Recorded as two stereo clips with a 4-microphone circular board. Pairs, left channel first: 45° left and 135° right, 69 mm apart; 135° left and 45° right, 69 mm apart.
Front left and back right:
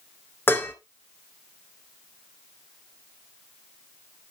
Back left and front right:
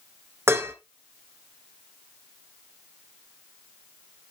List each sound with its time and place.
0.5 s dishes clattering: 5° right, 1.5 m